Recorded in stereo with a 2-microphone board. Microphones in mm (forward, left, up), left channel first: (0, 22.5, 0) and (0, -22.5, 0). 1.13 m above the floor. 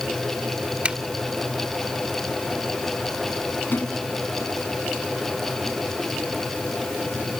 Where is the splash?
45° left (ahead or behind).